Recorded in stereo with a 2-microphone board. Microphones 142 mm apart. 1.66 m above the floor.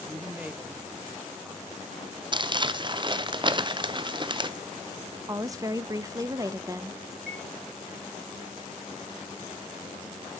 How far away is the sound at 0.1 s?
About 0.7 m.